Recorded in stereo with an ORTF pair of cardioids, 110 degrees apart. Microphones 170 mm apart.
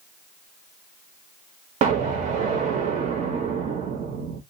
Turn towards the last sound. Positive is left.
turn(degrees=-45)